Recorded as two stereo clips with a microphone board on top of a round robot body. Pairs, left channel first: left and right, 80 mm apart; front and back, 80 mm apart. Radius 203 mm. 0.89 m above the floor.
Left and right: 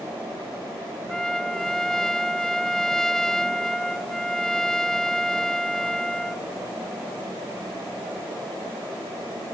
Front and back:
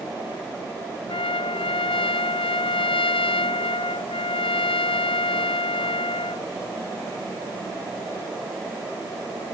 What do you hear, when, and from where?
1.1 s a trumpet: 5° left